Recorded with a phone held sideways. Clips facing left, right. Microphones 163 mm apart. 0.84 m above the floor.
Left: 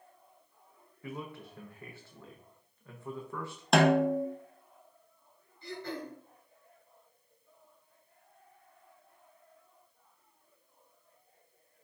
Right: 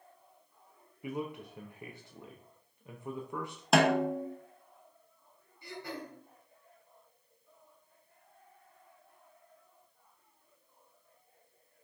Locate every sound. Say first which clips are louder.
1.0 s a man speaking: right 4 dB; 15° right (ahead or behind), 0.6 m
3.7 s a snare drum: left 2 dB; 5° right (ahead or behind), 0.7 m
5.6 s throat clearing: left 3 dB; 15° right (ahead or behind), 3 m